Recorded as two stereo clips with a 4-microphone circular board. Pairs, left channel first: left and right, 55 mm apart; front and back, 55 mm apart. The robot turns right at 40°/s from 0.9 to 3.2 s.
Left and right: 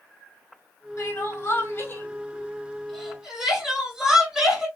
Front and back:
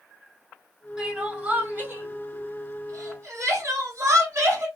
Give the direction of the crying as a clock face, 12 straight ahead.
9 o'clock.